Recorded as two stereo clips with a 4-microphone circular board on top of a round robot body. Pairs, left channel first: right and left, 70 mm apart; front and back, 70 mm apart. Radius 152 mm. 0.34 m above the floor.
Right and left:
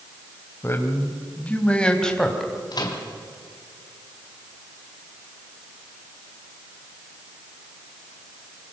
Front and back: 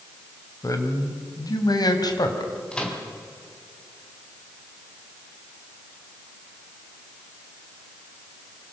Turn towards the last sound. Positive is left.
turn(degrees=-75)